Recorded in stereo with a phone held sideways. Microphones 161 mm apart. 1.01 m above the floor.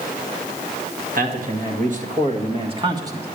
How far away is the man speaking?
About 2 m.